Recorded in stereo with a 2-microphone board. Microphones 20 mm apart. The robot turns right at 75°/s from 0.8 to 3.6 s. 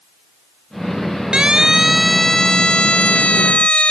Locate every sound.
1.3 s a siren: 50° right (ahead or behind); by 3.9 s 70° left (ahead or behind)